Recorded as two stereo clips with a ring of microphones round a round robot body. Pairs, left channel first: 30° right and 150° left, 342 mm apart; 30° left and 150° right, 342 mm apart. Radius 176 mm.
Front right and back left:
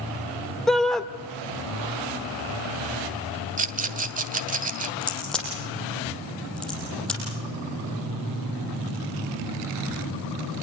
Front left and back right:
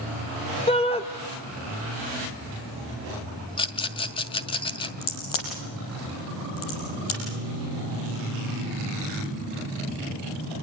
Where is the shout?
55° left, 1.0 m.